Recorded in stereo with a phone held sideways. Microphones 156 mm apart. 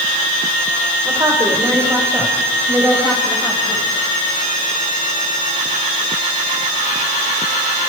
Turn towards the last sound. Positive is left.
turn(degrees=-10)  # may be behind; listen again after turning